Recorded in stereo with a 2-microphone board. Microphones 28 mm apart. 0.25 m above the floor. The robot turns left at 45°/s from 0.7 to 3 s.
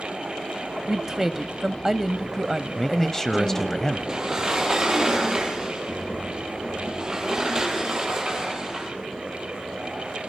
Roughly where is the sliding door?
Right.